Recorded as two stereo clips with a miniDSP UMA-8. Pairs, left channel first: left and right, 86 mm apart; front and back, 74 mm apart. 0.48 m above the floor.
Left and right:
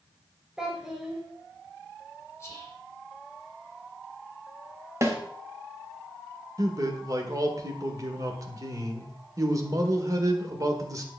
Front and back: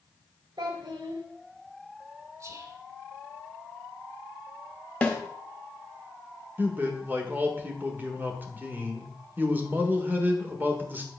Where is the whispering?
145° left, 2.5 m.